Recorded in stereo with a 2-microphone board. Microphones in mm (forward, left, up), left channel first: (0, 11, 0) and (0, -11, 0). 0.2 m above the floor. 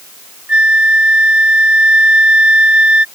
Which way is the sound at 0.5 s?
65° right (ahead or behind).